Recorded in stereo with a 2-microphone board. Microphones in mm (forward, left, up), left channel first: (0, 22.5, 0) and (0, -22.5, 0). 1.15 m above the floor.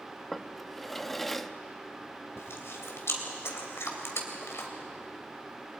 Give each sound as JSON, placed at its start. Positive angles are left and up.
{"t": 0.3, "sound": "a drawer", "side_deg": 5, "distance_m": 0.6}
{"t": 2.4, "sound": "chewing", "side_deg": 70, "distance_m": 3.0}